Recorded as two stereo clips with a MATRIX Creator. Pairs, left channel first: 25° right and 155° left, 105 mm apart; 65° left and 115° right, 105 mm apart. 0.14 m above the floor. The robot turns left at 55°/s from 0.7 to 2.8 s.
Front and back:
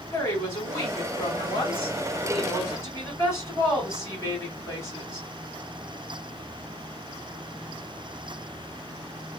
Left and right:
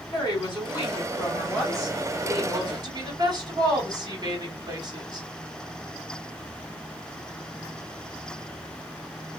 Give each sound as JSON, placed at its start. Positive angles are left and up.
{"t": 0.1, "sound": "a woman speaking", "azimuth_deg": 30, "distance_m": 3.0}